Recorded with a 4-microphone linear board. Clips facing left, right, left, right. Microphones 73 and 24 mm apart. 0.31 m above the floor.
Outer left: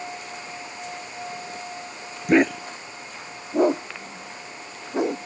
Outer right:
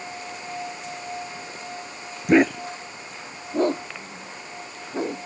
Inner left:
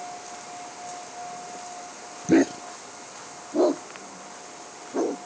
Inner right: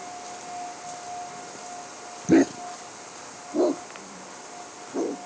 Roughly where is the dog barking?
Centre.